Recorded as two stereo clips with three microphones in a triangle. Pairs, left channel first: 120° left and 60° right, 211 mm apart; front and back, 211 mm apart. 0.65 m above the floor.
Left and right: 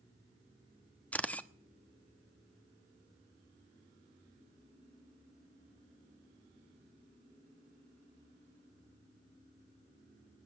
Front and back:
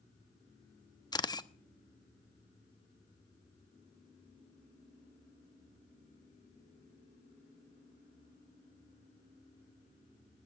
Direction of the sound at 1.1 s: 45° left.